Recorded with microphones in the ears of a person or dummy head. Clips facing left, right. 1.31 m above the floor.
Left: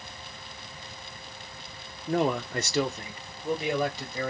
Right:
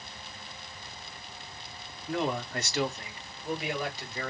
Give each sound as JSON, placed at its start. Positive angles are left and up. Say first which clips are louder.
{"t": 2.1, "sound": "a man speaking", "louder": "left 5 dB", "side_deg": 25, "distance_m": 0.5}